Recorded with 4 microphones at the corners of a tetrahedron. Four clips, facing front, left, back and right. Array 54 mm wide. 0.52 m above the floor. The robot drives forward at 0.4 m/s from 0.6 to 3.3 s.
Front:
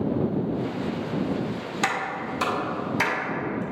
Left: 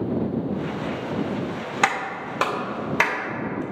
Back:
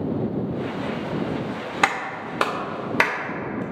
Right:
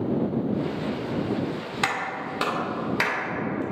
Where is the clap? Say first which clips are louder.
Left 4 dB, back 4 dB; 145° left, 0.8 m; by 3.6 s 160° left, 1.3 m.